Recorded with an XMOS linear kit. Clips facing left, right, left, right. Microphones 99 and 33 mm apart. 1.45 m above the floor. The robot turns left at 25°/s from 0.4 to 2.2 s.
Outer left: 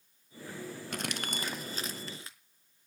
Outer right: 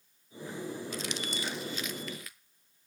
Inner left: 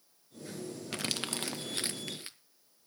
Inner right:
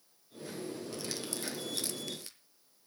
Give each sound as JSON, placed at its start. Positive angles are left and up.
{"t": 0.9, "sound": "crumpling", "side_deg": 60, "distance_m": 0.7}